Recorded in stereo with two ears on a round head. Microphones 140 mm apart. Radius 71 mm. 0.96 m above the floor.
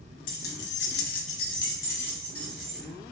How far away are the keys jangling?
About 0.8 m.